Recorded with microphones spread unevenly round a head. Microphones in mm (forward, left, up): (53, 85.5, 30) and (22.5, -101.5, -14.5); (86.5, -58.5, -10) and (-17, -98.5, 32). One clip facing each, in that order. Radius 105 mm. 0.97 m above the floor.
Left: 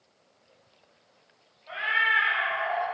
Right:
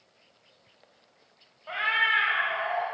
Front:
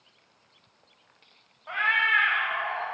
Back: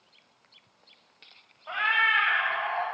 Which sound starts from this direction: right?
A cat meowing, at 1.7 s.